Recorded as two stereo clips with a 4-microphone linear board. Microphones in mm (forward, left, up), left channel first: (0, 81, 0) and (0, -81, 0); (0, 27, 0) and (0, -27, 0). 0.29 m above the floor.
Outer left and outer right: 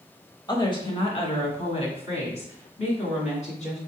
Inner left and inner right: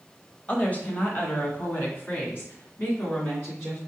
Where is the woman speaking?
25° left (ahead or behind), 0.9 m; by 3.8 s 45° left (ahead or behind), 2.5 m.